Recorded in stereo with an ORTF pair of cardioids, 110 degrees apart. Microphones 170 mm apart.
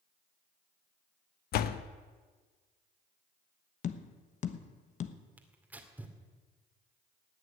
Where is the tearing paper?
10° right, 2 m.